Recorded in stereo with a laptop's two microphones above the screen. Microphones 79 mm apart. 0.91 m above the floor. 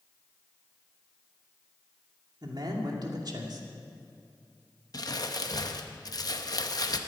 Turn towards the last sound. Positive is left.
turn(degrees=55)  # may be behind; listen again after turning